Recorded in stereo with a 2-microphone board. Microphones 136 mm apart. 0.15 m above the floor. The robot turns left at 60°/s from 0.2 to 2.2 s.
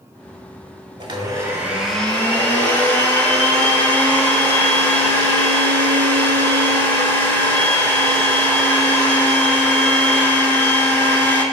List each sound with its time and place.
1.0 s a blender: 125° right, 0.7 m; by 11.4 s 160° left, 0.7 m